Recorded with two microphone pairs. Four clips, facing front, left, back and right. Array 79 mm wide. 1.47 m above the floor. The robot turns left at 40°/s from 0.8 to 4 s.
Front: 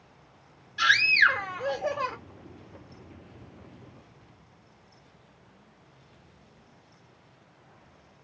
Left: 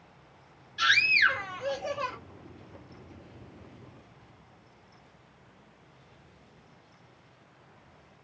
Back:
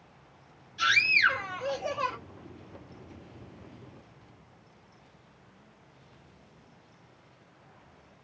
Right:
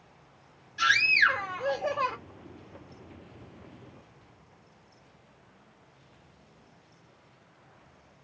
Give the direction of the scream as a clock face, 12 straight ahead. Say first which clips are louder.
Right 1 dB, front 3 dB; 12 o'clock.